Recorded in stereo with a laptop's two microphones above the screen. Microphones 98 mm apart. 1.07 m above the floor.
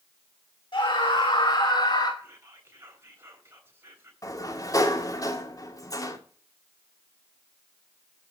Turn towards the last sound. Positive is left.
turn(degrees=35)  # may be behind; listen again after turning